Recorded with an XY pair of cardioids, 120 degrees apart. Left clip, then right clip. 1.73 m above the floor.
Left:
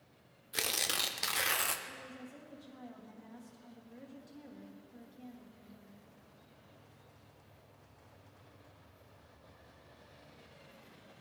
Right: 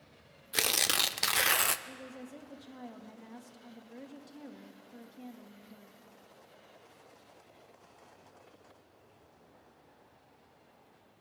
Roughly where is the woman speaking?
Ahead right.